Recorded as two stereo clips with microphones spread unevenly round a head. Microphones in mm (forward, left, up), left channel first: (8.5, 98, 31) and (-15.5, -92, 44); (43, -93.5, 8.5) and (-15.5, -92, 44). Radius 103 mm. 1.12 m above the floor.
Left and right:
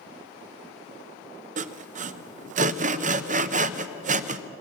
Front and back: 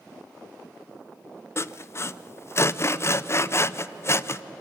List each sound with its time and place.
1.6 s sawing: 45° right, 0.6 m